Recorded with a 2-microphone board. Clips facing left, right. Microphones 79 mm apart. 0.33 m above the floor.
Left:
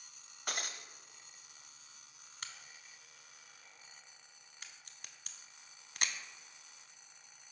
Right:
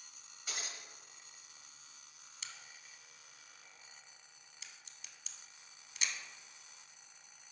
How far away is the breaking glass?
About 0.5 m.